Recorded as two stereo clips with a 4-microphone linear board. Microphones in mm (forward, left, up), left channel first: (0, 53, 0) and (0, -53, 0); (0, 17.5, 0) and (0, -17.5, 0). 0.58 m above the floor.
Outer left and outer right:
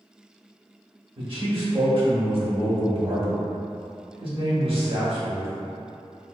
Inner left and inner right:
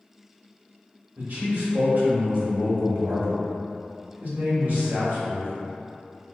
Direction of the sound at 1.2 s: 55° right (ahead or behind).